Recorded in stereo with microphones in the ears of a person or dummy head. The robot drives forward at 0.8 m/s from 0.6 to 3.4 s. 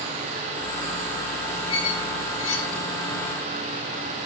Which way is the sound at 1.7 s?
40° left (ahead or behind).